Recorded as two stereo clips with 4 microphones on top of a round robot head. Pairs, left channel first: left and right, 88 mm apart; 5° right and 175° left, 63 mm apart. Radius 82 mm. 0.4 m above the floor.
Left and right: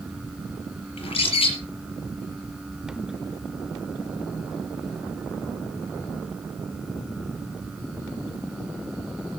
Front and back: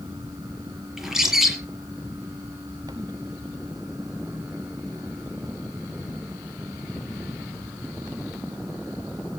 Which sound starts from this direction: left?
A bird, at 1.0 s.